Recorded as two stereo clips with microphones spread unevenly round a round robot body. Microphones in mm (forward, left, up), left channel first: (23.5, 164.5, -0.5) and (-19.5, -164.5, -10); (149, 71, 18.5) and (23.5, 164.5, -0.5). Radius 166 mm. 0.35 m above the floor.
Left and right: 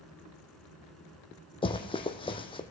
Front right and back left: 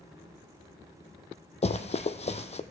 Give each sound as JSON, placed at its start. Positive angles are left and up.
{"t": 1.6, "sound": "running footsteps", "azimuth_deg": 10, "distance_m": 1.0}